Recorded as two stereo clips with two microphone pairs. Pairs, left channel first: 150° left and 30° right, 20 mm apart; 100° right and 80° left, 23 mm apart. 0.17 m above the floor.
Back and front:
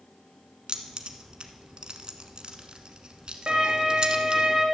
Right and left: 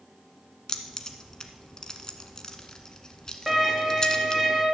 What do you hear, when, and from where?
0.7 s keys jangling: 50° right, 1.1 m
3.5 s a violin: straight ahead, 3 m